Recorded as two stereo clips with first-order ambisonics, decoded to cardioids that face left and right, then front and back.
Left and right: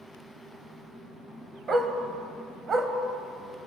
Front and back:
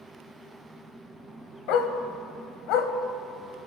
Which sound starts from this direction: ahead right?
A dog barking, at 1.7 s.